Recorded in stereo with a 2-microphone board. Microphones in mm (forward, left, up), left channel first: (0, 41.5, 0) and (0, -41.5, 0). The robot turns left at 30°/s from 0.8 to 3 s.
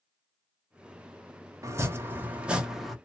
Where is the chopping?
140° right, 0.8 m; by 3.0 s straight behind, 0.8 m.